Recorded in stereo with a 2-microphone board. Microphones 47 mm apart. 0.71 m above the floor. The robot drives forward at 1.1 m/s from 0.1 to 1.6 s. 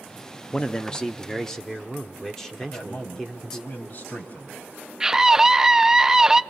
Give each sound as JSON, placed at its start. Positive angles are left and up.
{"t": 0.5, "sound": "a man speaking", "side_deg": 25, "distance_m": 0.7}
{"t": 2.6, "sound": "a man speaking", "side_deg": 45, "distance_m": 3.5}
{"t": 5.0, "sound": "a scream", "side_deg": -15, "distance_m": 0.5}